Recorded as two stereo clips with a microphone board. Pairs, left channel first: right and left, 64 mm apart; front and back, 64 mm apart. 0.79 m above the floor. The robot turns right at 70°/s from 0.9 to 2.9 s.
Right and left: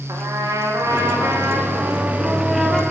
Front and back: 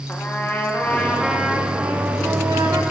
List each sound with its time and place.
0.1 s a trumpet: 60° left, 0.5 m; by 2.8 s 165° right, 0.5 m